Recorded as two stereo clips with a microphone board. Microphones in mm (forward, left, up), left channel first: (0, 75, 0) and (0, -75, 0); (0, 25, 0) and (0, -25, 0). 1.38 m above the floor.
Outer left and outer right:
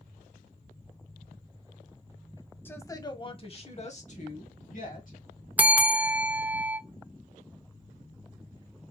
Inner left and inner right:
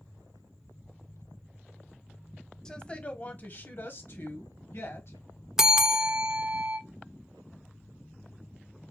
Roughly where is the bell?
Centre.